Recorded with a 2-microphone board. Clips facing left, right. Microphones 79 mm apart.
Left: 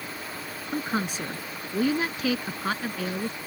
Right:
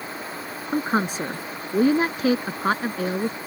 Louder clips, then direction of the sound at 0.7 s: Right 6 dB; 40° right (ahead or behind).